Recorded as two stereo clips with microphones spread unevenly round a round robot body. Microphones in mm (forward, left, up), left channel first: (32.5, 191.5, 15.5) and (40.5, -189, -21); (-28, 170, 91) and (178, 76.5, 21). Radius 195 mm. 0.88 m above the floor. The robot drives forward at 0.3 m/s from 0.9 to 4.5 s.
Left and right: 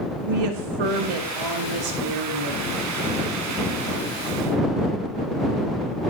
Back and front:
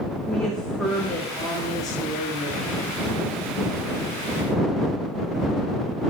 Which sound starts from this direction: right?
A woman speaking, at 0.3 s.